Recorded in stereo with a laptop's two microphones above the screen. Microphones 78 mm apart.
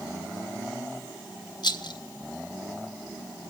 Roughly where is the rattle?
Left.